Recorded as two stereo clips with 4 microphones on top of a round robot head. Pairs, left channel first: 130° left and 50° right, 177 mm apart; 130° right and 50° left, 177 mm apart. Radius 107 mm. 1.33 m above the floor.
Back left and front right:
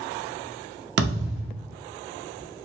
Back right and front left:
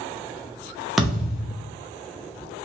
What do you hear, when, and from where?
1.0 s a thud: 40° right, 0.8 m